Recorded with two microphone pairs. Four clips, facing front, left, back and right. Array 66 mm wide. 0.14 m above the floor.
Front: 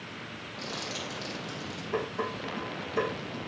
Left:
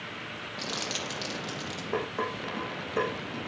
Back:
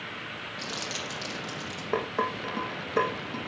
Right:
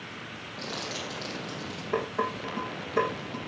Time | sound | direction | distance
0.6 | crumpling | 110° left | 4.5 m
1.9 | dishes clattering | straight behind | 4 m